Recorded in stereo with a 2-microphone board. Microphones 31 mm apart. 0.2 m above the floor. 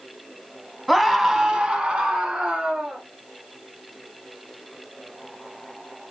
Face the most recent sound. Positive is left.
turn(degrees=-35)  # may be behind; listen again after turning